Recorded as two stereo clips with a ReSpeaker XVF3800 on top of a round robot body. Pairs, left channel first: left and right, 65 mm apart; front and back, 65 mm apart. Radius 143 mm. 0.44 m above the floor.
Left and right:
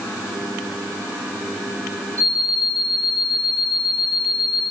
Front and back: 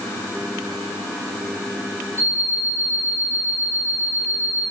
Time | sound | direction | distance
2.2 | an alarm clock | 50° right | 7.5 m